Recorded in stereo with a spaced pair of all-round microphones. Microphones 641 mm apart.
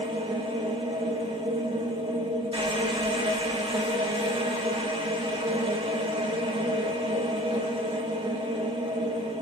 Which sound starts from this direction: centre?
A machine running, at 0.0 s.